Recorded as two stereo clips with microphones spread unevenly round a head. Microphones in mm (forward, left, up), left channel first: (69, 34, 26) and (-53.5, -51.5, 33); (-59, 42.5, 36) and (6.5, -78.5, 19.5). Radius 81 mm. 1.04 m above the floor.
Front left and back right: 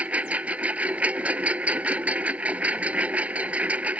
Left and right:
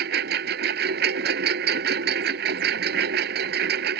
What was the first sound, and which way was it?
A lawn mower, 65° right.